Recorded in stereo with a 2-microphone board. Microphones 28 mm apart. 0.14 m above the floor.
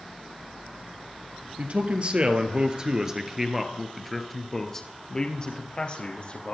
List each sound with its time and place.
1.6 s a man speaking: 45° right (ahead or behind), 2.5 m; by 6.5 s 45° left (ahead or behind), 3 m